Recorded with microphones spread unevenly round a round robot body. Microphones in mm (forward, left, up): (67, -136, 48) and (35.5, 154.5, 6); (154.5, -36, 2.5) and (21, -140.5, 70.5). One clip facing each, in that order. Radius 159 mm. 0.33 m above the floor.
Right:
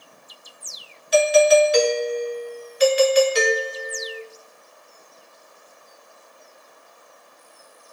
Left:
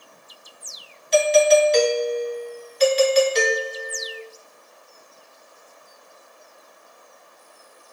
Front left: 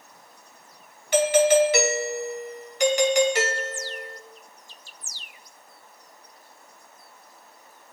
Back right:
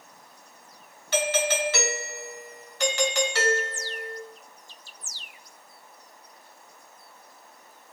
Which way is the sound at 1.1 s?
5° left.